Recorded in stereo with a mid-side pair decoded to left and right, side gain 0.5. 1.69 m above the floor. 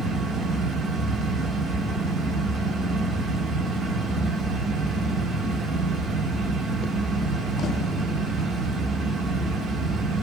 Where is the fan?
65° right, 0.8 m.